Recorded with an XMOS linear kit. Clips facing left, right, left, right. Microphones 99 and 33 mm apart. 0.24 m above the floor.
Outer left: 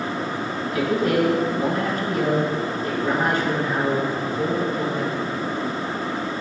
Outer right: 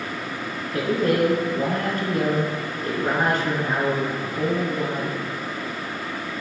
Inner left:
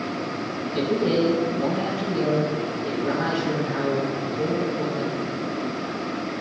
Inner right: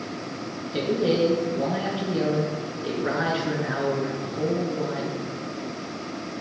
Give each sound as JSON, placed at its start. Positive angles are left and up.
{"t": 0.7, "sound": "a man speaking", "side_deg": -50, "distance_m": 3.5}